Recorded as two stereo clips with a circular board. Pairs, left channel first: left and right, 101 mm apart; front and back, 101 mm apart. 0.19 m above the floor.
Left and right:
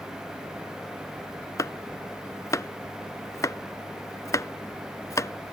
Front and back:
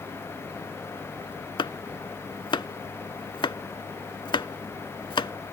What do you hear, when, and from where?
1.6 s chopping: 35° left